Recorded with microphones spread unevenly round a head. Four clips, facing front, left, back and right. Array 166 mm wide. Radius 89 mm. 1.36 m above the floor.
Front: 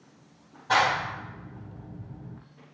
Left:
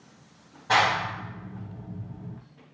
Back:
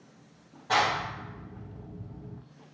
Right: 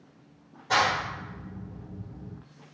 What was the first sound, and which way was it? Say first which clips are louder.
A clap: left 2 dB, front 3 dB; 50° left.